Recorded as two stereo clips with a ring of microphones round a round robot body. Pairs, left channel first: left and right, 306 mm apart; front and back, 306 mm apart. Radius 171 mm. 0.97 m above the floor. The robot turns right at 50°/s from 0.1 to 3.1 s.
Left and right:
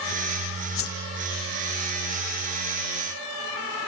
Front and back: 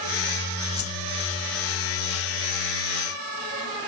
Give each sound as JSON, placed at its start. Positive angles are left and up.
{"t": 0.8, "sound": "a whoosh", "azimuth_deg": 45}